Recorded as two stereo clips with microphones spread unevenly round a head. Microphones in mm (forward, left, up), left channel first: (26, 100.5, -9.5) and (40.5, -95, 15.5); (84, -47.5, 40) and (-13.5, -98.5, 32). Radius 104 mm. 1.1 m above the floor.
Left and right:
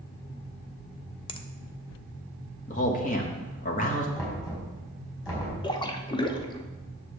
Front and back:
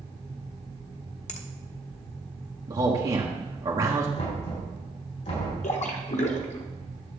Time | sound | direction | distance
1.3 | a finger snap | 30° left | 0.8 m
2.7 | a man speaking | 145° left | 1.4 m
4.2 | knocking | 20° left | 4.5 m
5.6 | a splash | 25° left | 1.0 m